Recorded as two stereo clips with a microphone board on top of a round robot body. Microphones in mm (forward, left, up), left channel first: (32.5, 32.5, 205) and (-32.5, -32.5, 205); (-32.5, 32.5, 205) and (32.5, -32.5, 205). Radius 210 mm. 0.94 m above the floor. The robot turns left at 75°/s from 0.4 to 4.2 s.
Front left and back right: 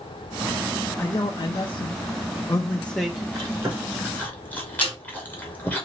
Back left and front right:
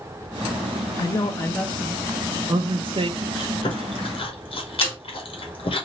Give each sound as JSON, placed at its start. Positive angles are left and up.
{"t": 1.0, "sound": "a man speaking", "azimuth_deg": 110, "distance_m": 0.6}
{"t": 3.4, "sound": "chewing", "azimuth_deg": 180, "distance_m": 1.5}
{"t": 4.8, "sound": "a snare drum", "azimuth_deg": 70, "distance_m": 2.5}